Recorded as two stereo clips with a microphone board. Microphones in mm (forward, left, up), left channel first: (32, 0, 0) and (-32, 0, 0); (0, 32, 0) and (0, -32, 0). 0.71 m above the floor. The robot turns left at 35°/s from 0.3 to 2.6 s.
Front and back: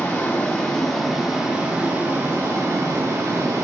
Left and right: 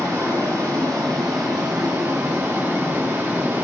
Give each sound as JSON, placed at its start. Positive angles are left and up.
{"t": 0.0, "sound": "running water", "azimuth_deg": -60, "distance_m": 1.4}